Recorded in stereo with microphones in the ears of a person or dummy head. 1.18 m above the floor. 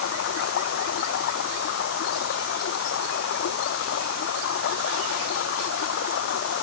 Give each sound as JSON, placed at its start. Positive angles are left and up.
{"t": 0.0, "sound": "running water", "side_deg": 50}